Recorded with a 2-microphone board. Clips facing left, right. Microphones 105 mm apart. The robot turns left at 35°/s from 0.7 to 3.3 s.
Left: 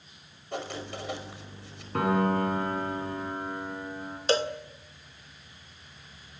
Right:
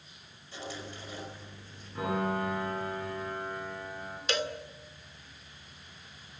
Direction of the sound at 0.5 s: 65° left (ahead or behind).